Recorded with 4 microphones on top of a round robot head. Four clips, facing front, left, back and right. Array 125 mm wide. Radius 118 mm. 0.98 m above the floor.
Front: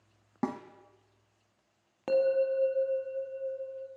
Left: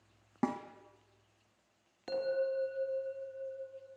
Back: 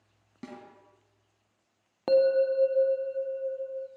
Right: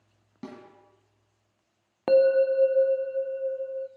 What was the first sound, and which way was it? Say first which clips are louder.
A snare drum: left 8 dB, front 10 dB; 40° left.